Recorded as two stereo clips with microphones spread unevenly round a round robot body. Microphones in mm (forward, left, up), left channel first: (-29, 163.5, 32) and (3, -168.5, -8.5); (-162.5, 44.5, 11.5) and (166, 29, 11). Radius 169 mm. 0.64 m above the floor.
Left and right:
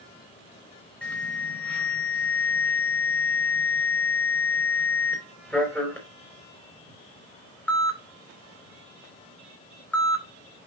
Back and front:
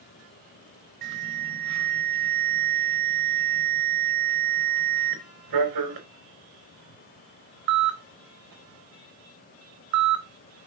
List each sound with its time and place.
1.0 s an alarm: 5° left, 3.5 m